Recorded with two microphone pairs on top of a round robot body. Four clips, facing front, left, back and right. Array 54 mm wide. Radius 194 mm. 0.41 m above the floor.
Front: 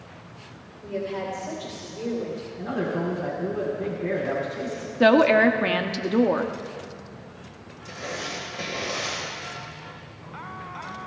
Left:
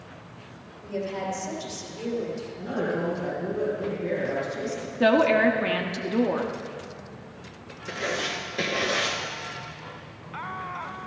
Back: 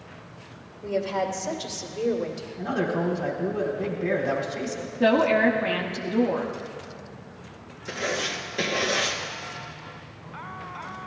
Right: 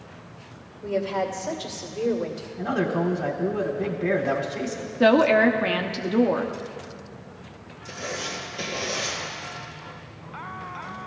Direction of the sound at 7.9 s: 140° left.